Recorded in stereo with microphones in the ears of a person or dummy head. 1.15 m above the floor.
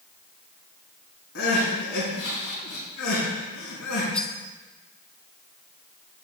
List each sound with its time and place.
1.4 s crying: 75° left (ahead or behind), 5 m
4.1 s cutlery clinking: 10° left (ahead or behind), 0.8 m